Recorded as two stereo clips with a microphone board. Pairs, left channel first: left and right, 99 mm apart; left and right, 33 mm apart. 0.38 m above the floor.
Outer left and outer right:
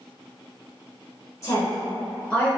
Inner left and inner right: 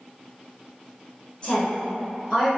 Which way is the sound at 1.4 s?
35° left (ahead or behind).